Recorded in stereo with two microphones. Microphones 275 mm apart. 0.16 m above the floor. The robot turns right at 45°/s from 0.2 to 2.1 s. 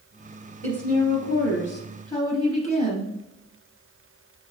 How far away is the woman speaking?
About 1.9 m.